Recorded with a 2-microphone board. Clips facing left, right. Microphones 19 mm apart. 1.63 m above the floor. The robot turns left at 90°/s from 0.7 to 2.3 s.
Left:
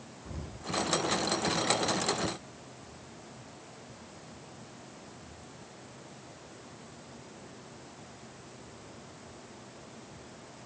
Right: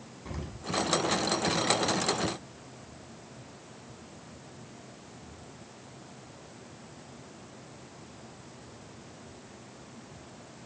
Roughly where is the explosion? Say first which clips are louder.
Right 4 dB; right.